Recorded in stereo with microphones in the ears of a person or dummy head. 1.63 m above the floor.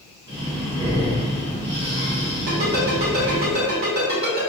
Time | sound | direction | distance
0.3 | breathing | 45° right (ahead or behind) | 1.8 m
2.5 | a ringtone | 45° right (ahead or behind) | 1.5 m